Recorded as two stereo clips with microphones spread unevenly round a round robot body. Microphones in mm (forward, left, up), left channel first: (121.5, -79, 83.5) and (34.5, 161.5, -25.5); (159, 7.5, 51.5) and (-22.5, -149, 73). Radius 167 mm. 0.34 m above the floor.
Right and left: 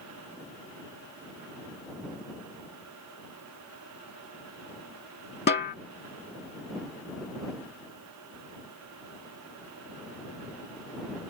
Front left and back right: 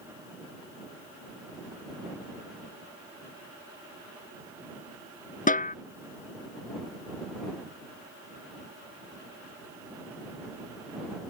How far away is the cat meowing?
No cat meowing in this recording.